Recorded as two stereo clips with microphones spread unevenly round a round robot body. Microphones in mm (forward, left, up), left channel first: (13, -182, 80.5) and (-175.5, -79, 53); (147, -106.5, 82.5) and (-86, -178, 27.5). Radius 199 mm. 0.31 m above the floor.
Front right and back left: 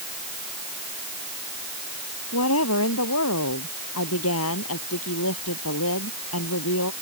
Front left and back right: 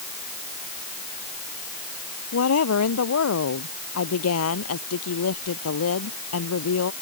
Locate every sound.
2.3 s a woman speaking: 5° left